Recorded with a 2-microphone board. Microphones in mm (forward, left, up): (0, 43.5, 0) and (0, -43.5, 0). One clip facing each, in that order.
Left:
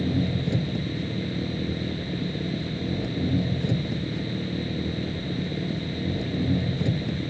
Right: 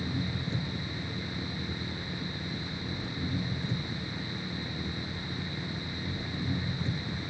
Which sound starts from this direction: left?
An engine running, at 0.0 s.